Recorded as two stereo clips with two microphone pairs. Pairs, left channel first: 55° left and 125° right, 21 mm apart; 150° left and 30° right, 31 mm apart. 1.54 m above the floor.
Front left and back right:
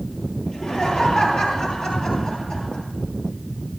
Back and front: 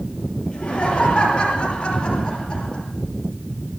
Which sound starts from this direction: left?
Laughter, at 0.5 s.